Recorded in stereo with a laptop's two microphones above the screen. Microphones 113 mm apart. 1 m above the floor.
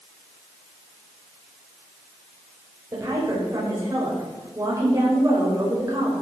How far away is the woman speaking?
About 5 m.